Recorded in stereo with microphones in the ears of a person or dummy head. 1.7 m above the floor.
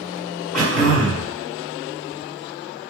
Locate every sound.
0.5 s throat clearing: centre (ahead or behind), 1.5 m